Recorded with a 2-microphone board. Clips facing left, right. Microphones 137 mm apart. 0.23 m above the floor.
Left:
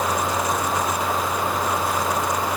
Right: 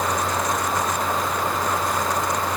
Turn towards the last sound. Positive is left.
No sound to turn to.